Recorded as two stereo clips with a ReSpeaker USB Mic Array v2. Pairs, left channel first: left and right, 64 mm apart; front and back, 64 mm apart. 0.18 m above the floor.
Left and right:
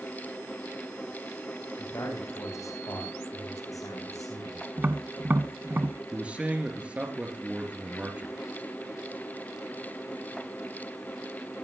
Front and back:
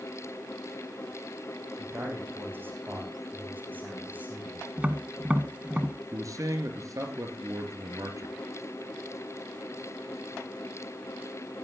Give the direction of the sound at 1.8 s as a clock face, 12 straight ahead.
8 o'clock.